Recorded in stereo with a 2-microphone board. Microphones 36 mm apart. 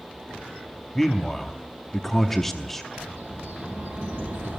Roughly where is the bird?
Right.